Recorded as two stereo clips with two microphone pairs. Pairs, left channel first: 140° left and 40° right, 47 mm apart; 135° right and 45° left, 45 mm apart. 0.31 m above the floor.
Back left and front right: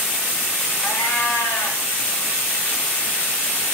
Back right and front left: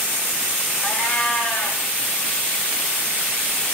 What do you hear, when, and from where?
0.8 s a cat meowing: 125° left, 6.5 m